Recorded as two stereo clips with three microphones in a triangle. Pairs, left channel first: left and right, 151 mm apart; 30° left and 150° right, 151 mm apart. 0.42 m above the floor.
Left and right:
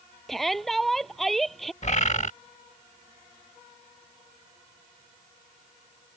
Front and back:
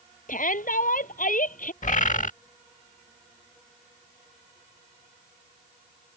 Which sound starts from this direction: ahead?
A shout, at 0.3 s.